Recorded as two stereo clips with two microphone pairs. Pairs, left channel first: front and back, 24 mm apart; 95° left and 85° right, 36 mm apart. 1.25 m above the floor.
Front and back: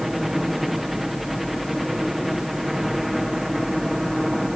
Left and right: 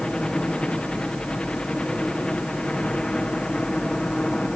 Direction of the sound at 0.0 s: 105° left.